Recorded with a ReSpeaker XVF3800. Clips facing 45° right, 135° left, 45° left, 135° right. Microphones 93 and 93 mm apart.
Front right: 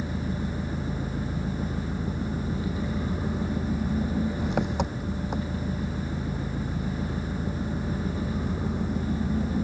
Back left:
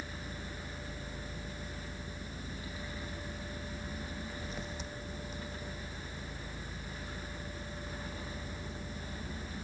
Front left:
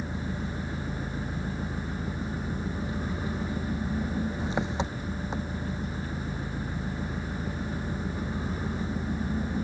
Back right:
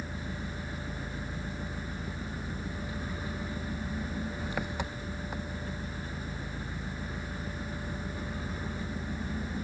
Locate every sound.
0.0 s an engine running: 20° right